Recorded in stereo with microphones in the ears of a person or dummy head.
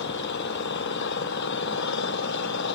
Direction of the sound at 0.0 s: 70° left (ahead or behind).